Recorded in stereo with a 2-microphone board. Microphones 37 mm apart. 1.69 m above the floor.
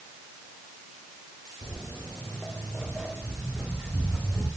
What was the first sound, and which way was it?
Footsteps, 25° left (ahead or behind).